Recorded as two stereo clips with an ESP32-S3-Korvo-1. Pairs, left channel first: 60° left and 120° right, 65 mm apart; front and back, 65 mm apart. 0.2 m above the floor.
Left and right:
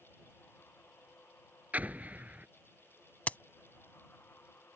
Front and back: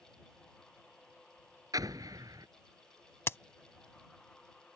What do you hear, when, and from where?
1.7 s an explosion: 175° left
3.3 s a crack: 5° left